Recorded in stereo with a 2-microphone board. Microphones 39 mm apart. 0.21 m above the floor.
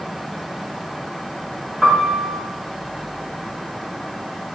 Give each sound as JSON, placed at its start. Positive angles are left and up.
{"t": 1.8, "sound": "a piano", "side_deg": -5, "distance_m": 9.5}